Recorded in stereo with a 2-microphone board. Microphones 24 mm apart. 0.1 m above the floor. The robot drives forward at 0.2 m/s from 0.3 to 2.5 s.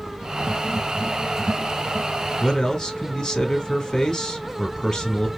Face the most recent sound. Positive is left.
turn(degrees=25)  # may be behind; listen again after turning